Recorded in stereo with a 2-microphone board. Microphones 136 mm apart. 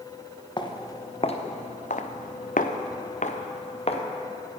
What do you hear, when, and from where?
0.6 s footsteps: 35° left (ahead or behind), 1.6 m; by 4.0 s 45° left (ahead or behind), 1.6 m